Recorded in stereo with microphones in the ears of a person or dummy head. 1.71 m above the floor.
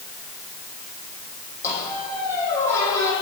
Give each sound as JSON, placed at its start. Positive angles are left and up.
{"t": 1.6, "sound": "a squeak", "side_deg": 15, "distance_m": 8.5}